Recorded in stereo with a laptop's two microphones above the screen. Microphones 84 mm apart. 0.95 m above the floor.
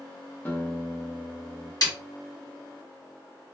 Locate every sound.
0.5 s a guitar: 25° left (ahead or behind), 0.8 m
1.8 s a snare drum: 50° left (ahead or behind), 1.1 m